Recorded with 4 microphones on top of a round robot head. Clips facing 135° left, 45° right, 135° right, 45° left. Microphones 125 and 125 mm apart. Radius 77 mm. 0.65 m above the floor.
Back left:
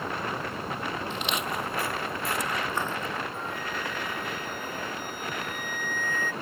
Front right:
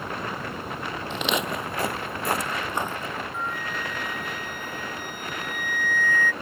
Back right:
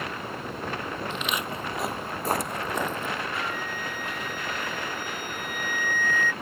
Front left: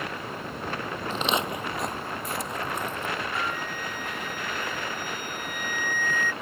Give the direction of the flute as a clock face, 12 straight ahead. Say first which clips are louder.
Front right 2 dB, front left 1 dB; 12 o'clock.